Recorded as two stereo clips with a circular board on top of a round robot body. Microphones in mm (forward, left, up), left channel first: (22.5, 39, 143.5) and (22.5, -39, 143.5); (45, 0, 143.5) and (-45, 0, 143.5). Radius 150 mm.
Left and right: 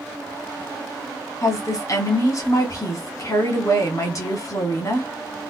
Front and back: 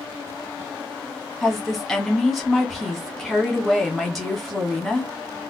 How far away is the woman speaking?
About 1.8 m.